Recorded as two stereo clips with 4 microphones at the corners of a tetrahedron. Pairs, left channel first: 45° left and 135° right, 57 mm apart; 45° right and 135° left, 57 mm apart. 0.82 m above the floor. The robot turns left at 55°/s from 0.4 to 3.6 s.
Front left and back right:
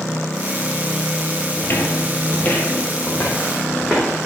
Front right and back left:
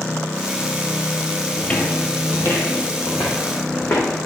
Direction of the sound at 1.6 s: 20° left.